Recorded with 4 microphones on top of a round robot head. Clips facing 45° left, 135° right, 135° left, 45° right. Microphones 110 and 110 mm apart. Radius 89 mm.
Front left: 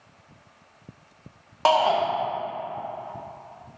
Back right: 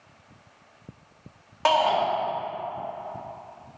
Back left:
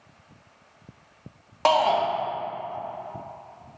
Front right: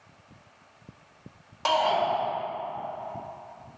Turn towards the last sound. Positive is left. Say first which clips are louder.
# front left 1 dB, back left 4 dB
turn(degrees=105)